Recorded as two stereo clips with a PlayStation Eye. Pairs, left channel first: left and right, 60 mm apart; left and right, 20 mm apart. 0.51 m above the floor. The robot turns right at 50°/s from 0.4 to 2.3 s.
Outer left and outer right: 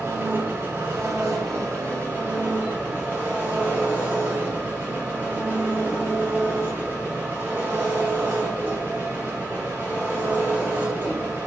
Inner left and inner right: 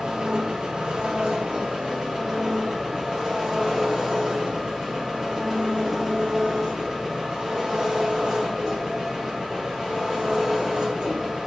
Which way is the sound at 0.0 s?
130° right.